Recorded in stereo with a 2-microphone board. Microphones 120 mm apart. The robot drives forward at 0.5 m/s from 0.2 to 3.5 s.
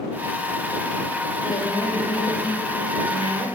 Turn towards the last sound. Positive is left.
turn(degrees=45)  # may be behind; listen again after turning